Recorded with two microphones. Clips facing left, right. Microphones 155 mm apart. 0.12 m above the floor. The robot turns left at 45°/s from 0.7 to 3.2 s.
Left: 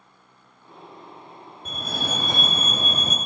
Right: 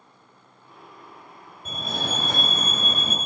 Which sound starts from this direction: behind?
A fire alarm, at 1.6 s.